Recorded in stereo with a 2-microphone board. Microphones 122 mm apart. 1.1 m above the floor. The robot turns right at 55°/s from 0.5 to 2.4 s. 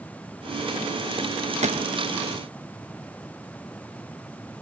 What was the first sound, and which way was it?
A gunshot, 70° right (ahead or behind).